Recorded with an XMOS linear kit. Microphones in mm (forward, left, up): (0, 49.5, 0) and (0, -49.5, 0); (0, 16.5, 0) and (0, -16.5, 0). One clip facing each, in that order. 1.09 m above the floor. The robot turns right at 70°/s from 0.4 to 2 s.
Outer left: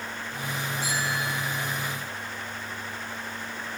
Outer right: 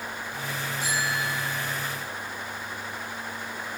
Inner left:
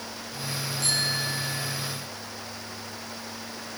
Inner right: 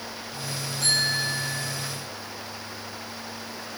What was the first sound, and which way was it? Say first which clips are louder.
A bicycle bell: outer right 2 dB, inner right 4 dB; 95° right.